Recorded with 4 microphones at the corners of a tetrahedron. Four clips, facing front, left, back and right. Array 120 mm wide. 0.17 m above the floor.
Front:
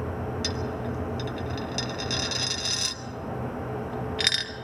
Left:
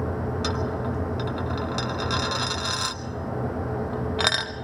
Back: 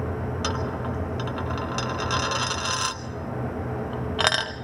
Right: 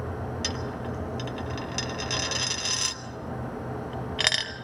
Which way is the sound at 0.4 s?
175° left.